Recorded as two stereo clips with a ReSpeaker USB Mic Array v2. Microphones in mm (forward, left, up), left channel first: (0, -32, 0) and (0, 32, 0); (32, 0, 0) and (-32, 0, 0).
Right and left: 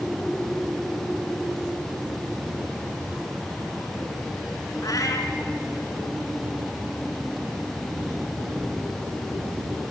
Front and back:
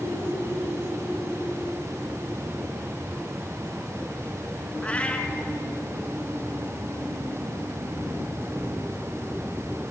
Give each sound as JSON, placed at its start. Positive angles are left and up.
{"t": 4.8, "sound": "a cat meowing", "azimuth_deg": -70, "distance_m": 2.0}